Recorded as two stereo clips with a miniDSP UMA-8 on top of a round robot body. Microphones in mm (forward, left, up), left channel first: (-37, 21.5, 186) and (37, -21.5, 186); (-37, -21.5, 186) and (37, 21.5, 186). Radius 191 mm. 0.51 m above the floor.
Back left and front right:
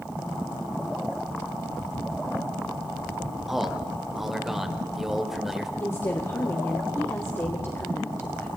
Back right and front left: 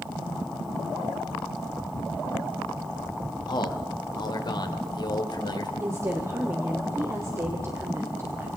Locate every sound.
3.5 s a man speaking: 115° right, 3 m
5.8 s a woman speaking: 90° left, 2.5 m